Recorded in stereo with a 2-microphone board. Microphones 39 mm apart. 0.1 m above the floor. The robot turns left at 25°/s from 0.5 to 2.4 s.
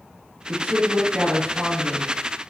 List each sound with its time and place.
0.5 s a woman speaking: 150° right, 1.6 m; by 2.1 s 170° left, 1.6 m